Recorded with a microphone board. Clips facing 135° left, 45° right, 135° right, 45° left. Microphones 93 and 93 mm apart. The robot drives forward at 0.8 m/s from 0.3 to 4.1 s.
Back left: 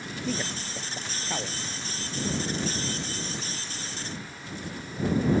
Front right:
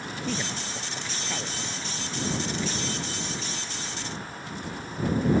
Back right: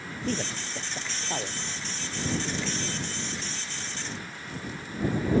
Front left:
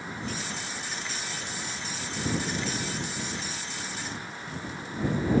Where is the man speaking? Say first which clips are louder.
Back left 1 dB, back right 4 dB; 145° right; by 1.6 s 155° right.